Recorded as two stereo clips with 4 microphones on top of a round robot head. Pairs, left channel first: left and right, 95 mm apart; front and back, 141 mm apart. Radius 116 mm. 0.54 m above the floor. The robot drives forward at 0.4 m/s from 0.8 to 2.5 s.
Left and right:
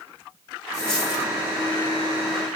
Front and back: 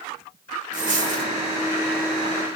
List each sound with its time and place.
0.7 s a dropped coin: 155° left, 2 m